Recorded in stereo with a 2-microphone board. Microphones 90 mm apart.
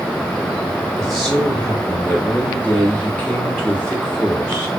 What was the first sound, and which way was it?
A man speaking, 15° left (ahead or behind).